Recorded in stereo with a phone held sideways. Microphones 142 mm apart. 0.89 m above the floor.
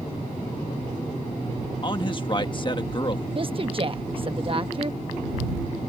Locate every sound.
1.8 s a man speaking: 35° left (ahead or behind)
3.4 s a woman speaking: 40° right (ahead or behind)